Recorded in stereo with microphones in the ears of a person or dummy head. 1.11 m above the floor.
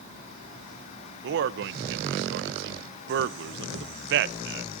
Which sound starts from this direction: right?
A man speaking, at 1.2 s.